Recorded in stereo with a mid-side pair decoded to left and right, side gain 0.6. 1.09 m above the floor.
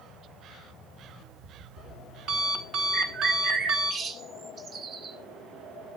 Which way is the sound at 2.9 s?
45° right.